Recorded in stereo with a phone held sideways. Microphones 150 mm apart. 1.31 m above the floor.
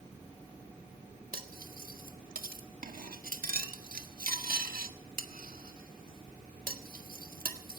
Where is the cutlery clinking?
75° right (ahead or behind), 1.6 m.